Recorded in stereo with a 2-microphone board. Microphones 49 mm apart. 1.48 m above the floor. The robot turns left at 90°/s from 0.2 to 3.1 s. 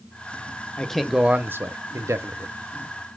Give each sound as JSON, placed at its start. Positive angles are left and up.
{"t": 0.8, "sound": "a man speaking", "azimuth_deg": 20, "distance_m": 0.7}